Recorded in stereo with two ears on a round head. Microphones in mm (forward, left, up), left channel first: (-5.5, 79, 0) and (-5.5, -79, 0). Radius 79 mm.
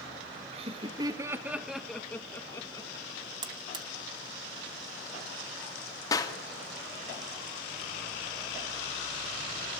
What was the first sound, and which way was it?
Laughter, 35° right (ahead or behind).